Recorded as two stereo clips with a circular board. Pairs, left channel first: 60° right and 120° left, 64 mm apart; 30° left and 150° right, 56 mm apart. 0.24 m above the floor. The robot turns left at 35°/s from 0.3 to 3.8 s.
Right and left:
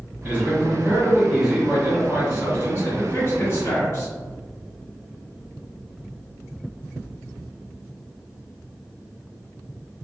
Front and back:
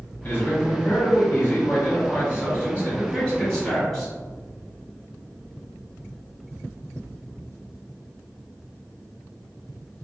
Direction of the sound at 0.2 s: 65° left.